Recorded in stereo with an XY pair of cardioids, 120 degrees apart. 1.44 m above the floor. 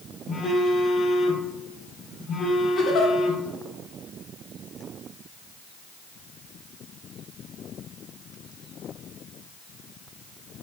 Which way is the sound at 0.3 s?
40° left.